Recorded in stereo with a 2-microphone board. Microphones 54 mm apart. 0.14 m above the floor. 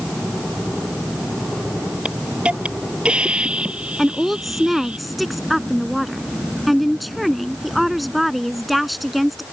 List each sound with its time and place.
2.0 s a hiss: 20° right (ahead or behind)
4.0 s a woman speaking: centre (ahead or behind)